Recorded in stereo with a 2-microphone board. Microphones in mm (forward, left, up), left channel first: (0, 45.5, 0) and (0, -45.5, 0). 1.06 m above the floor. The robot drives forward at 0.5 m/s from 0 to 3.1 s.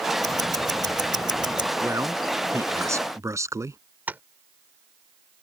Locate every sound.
0.2 s ticking: 40° right (ahead or behind); by 1.7 s 50° right (ahead or behind)
1.8 s a man speaking: 30° right (ahead or behind)
4.1 s tapping: 20° right (ahead or behind)